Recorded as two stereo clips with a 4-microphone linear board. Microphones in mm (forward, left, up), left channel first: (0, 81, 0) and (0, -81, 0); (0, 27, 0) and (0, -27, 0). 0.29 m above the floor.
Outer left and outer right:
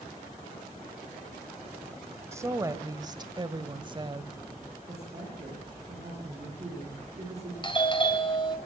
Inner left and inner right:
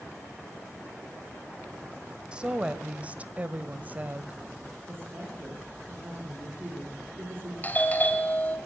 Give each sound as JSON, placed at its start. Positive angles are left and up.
{"t": 2.3, "sound": "a woman speaking", "side_deg": -15, "distance_m": 1.3}
{"t": 4.9, "sound": "a woman speaking", "side_deg": -40, "distance_m": 8.0}
{"t": 7.6, "sound": "a doorbell", "side_deg": 30, "distance_m": 1.9}